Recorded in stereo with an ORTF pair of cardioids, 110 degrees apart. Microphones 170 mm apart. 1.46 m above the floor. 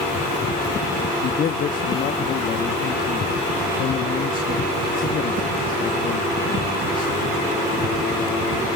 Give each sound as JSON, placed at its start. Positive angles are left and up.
{"t": 1.2, "sound": "a man speaking", "azimuth_deg": 55, "distance_m": 2.0}